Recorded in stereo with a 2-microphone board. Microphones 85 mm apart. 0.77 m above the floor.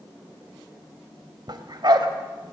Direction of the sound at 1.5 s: 55° right (ahead or behind).